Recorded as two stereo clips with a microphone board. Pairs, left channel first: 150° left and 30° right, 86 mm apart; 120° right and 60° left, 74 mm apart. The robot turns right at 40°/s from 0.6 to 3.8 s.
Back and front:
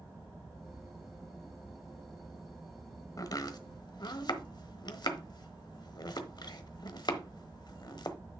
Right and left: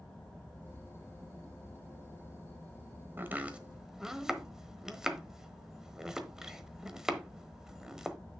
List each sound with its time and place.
3.2 s chopping: 115° left, 1.1 m; by 8.2 s 140° left, 1.1 m